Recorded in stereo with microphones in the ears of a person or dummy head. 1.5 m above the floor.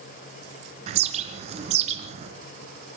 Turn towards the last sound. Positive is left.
turn(degrees=-40)  # may be behind; listen again after turning